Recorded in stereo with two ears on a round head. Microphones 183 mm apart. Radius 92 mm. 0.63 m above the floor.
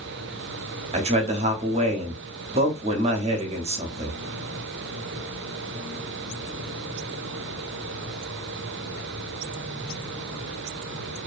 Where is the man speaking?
35° right (ahead or behind), 0.6 m.